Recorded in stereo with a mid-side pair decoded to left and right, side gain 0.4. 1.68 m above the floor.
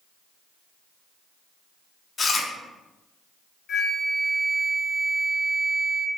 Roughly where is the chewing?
Ahead left.